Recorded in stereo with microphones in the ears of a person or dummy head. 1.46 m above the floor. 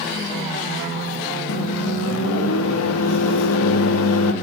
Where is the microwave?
85° left, 1.2 m.